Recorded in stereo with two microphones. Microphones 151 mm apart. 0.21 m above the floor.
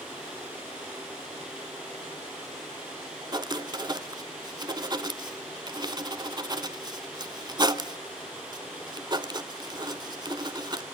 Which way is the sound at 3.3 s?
30° right (ahead or behind).